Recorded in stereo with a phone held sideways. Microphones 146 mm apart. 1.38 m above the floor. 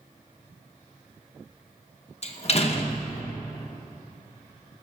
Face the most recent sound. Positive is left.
turn(degrees=45)  # may be behind; listen again after turning